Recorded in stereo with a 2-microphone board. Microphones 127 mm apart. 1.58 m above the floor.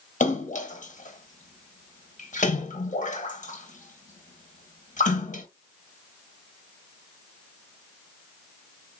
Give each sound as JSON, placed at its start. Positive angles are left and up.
{"t": 0.2, "sound": "a splash", "side_deg": 80, "distance_m": 1.3}